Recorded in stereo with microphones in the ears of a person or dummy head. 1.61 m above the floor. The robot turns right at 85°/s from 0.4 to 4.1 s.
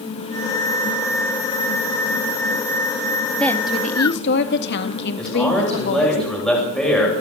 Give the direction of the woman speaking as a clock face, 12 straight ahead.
12 o'clock.